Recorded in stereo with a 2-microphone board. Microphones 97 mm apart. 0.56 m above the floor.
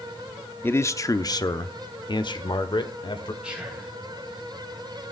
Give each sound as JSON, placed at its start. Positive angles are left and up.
{"t": 0.6, "sound": "a man speaking", "side_deg": 20, "distance_m": 0.7}
{"t": 3.4, "sound": "whispering", "side_deg": -10, "distance_m": 4.5}